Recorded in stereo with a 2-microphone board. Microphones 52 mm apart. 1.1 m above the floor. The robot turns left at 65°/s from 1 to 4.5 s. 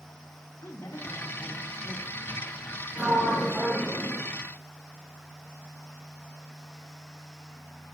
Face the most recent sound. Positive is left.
turn(degrees=115)